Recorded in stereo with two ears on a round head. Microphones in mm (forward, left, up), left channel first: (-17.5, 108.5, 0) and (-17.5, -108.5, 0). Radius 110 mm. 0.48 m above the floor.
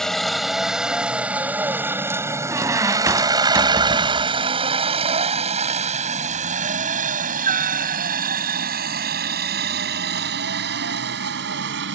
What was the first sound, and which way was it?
A helicopter, centre (ahead or behind).